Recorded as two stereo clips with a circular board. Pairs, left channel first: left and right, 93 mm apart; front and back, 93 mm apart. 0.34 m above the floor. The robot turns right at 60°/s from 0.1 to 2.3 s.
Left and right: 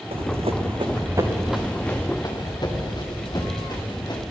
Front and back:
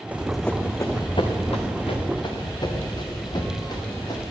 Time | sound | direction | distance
0.1 | running footsteps | 105° right | 1.3 m